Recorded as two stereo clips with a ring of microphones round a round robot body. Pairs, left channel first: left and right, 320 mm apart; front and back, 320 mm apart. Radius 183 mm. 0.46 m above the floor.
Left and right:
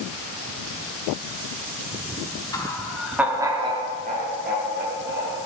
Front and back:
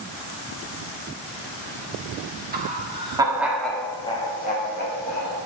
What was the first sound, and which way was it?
Laughter, 160° left.